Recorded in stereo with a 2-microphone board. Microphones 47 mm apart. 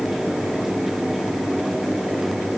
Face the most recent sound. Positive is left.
No sound to turn to.